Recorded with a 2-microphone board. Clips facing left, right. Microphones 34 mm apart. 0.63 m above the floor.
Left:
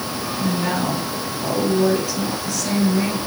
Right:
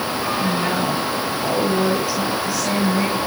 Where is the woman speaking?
10° right (ahead or behind), 7 m.